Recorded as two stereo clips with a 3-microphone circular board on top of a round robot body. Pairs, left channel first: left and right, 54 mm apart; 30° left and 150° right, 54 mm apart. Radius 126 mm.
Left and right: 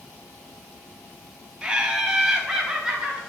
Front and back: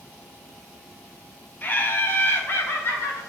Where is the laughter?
15° right, 1.2 m; by 3.2 s 10° right, 2 m.